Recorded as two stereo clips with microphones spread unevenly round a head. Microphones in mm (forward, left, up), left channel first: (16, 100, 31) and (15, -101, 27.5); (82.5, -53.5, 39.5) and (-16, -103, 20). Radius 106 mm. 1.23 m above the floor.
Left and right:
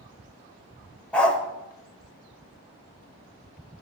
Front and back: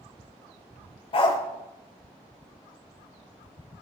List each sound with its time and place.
1.1 s a dog barking: 5° left, 1.7 m